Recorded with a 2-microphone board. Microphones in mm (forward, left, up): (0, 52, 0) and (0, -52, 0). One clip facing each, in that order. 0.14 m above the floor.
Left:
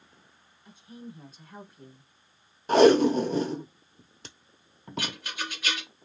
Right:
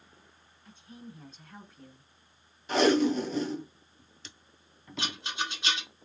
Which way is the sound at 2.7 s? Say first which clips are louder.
Left 6 dB; 50° left (ahead or behind).